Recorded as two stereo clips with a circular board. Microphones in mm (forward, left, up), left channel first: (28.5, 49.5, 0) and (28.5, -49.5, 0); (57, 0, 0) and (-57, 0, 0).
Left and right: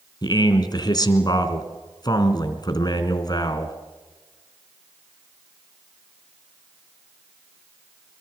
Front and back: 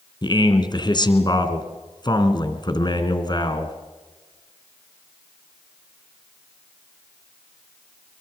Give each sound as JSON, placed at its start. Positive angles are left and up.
{"t": 0.2, "sound": "a man speaking", "azimuth_deg": 45, "distance_m": 3.0}